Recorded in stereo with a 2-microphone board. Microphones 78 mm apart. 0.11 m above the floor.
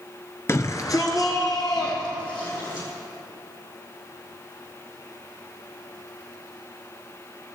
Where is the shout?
35° left (ahead or behind), 1.4 m; by 2.9 s 50° left (ahead or behind), 4 m.